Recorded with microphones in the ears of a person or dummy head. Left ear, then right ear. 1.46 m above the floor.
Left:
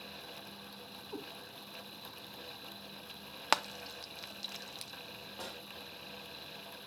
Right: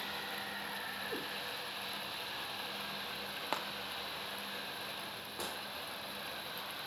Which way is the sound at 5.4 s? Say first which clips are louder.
Right 4 dB; 20° right (ahead or behind).